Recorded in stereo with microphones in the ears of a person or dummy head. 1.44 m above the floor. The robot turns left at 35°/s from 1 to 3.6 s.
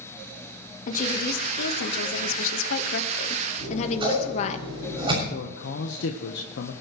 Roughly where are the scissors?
Right.